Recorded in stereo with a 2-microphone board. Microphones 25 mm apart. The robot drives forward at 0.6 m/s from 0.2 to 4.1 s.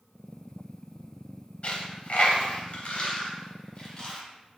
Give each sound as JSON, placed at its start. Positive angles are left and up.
{"t": 1.6, "sound": "a dropped coin", "side_deg": 55, "distance_m": 0.8}